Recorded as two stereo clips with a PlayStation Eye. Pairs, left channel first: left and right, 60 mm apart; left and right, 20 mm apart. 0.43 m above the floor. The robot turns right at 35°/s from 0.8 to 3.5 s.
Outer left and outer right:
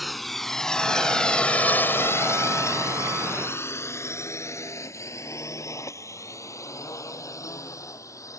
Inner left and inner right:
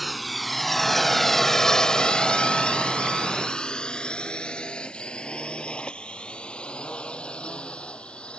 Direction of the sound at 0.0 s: Centre (ahead or behind).